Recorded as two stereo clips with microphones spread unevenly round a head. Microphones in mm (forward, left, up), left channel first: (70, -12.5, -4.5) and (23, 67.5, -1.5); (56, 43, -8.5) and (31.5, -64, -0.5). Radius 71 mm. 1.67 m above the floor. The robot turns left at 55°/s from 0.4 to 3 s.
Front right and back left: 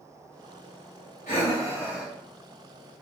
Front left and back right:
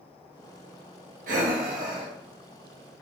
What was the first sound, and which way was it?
Breathing, 105° right.